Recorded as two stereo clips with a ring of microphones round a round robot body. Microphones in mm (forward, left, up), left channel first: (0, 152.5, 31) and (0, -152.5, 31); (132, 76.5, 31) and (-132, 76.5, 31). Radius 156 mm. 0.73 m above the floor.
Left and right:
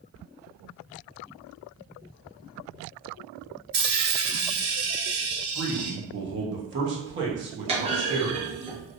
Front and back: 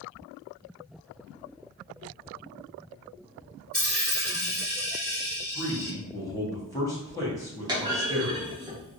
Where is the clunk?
130° right, 1.2 m.